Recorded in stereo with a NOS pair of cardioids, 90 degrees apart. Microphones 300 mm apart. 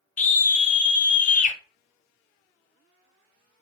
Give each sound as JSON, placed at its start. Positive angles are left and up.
{"t": 0.2, "sound": "a scream", "azimuth_deg": 30, "distance_m": 0.6}